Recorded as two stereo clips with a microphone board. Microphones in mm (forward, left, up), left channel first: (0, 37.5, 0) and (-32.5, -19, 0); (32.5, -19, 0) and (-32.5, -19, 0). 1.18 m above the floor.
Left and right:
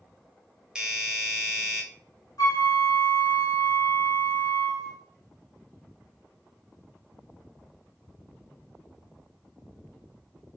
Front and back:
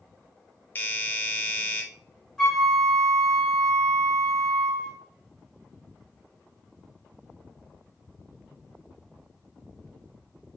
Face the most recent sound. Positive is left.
turn(degrees=85)